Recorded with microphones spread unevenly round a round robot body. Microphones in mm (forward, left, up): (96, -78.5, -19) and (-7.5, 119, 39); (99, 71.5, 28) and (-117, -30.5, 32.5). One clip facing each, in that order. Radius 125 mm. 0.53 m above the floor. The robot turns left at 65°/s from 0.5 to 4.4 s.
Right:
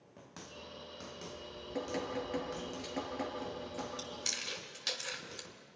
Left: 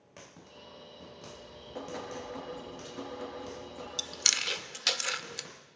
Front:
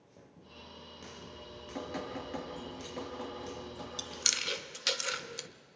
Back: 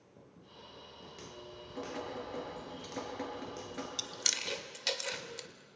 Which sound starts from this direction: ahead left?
Dripping, at 1.3 s.